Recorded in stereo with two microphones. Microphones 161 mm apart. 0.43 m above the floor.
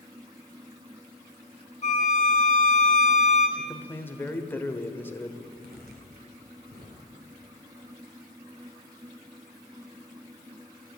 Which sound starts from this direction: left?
A violin, at 1.8 s.